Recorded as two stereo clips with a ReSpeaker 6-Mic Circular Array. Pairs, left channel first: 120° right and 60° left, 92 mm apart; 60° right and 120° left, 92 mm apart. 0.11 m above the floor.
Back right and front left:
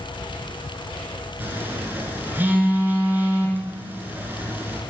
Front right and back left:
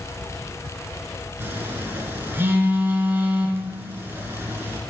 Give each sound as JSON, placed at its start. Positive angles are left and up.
{"t": 1.4, "sound": "a phone buzzing", "azimuth_deg": 100, "distance_m": 1.5}